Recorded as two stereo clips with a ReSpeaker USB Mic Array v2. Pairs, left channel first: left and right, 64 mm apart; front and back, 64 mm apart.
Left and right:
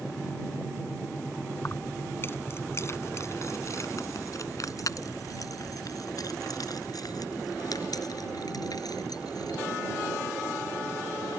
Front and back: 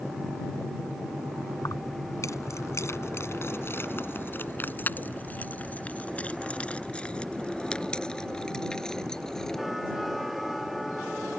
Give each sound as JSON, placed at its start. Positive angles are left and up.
{"t": 1.6, "sound": "keys jangling", "azimuth_deg": 30}